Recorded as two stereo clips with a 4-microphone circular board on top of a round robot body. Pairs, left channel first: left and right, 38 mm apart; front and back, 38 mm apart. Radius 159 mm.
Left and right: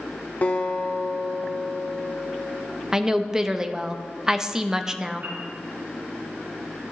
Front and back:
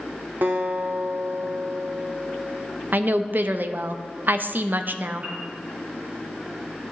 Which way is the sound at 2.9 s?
160° right.